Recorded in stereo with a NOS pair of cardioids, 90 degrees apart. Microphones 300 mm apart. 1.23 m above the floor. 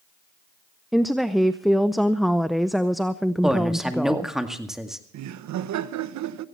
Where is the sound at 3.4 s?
Straight ahead, 2.0 m.